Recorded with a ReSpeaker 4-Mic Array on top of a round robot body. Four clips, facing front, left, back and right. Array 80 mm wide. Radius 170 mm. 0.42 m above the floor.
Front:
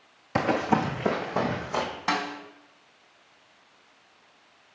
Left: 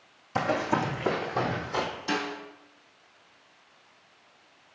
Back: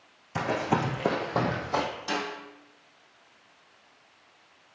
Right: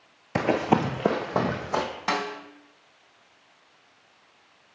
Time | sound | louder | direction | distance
0.3 | running footsteps | right 4 dB, front 3 dB | 60° right | 0.7 m
2.1 | a snare drum | right 4 dB, front 4 dB | 55° right | 2 m